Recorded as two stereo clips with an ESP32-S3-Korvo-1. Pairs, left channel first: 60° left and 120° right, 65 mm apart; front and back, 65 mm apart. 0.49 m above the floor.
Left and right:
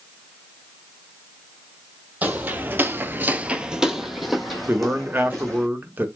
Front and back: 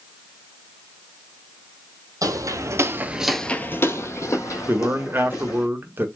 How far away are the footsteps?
About 1.0 m.